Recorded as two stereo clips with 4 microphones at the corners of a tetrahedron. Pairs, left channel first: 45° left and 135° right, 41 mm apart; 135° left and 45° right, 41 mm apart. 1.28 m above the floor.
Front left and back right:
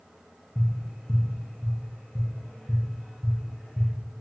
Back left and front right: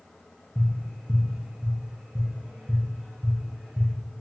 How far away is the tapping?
About 1.4 m.